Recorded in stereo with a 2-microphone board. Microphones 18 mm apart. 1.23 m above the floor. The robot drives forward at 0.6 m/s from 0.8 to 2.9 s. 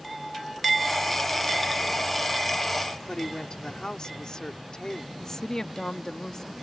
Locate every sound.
3.1 s a woman speaking: 45° left (ahead or behind)
5.2 s a woman speaking: 35° left (ahead or behind)